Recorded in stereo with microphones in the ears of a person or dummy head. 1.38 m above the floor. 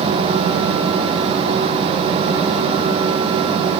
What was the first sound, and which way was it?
Only background noise.